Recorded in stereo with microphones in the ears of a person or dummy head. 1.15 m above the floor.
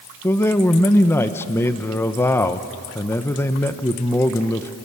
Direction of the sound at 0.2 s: 10° left (ahead or behind).